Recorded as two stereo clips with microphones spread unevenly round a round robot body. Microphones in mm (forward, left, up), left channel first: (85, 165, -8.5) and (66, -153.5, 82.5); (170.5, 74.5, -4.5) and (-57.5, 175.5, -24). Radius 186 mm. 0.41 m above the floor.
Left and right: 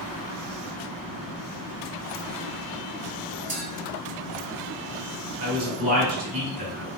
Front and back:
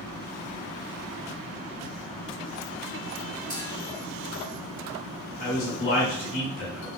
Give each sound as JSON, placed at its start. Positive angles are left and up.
{"t": 3.5, "sound": "a clink", "azimuth_deg": -120, "distance_m": 1.6}
{"t": 5.4, "sound": "a man speaking", "azimuth_deg": -25, "distance_m": 1.8}